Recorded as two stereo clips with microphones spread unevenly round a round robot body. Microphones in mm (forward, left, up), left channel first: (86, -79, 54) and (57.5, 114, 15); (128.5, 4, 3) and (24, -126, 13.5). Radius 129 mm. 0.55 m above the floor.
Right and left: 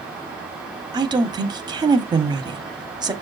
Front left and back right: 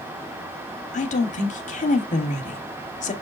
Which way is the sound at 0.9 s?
50° left.